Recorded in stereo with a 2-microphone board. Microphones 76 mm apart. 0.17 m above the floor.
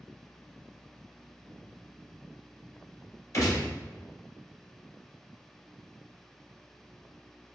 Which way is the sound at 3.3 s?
50° left (ahead or behind).